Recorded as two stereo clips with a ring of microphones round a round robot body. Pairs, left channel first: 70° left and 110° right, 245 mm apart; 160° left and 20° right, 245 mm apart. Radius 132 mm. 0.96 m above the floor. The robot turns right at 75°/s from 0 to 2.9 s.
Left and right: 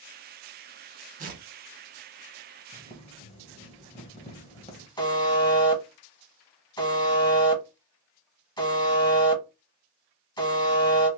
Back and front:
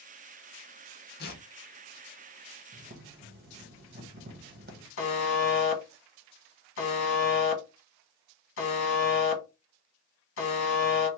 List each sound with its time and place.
1.2 s tearing paper: 165° right, 1.0 m; by 1.4 s 145° right, 1.0 m
2.7 s boiling: 5° right, 1.1 m; by 4.9 s 10° left, 1.1 m
5.0 s a buzzer: 140° left, 1.1 m